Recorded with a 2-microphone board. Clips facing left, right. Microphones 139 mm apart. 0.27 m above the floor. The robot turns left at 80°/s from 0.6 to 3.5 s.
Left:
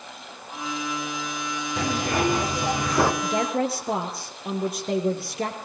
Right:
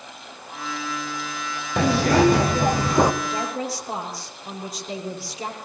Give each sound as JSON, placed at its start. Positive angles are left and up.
{"t": 1.8, "sound": "a zipper", "azimuth_deg": -60, "distance_m": 2.5}
{"t": 3.2, "sound": "a woman speaking", "side_deg": 35, "distance_m": 5.5}